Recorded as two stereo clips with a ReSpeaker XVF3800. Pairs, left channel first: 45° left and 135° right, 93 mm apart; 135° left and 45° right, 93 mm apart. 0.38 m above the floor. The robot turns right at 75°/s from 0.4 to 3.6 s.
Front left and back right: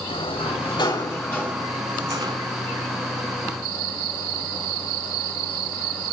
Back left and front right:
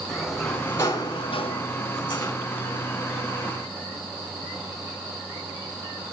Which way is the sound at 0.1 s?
45° left.